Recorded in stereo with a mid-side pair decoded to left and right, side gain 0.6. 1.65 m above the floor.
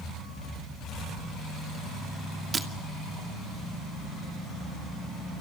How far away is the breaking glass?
About 2.5 m.